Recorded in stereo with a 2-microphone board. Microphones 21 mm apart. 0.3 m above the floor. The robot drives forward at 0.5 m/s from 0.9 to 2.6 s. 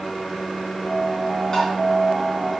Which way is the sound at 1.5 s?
30° left (ahead or behind).